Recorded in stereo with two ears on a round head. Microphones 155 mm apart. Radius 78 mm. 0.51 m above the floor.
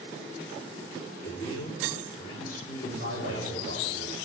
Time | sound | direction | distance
1.2 | a man speaking | 45° left (ahead or behind) | 1.9 m
2.8 | a man speaking | 65° left (ahead or behind) | 5.5 m